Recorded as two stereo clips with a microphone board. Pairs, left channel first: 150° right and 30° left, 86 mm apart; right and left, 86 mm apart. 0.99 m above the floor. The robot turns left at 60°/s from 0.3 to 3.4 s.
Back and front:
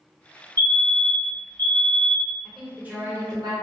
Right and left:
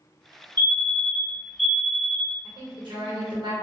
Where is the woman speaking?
125° left, 1.1 m; by 3.5 s 70° left, 1.1 m.